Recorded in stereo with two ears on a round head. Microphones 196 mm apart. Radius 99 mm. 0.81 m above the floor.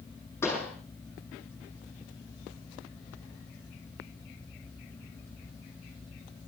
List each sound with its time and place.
0.4 s a pop: 10° left (ahead or behind), 9 m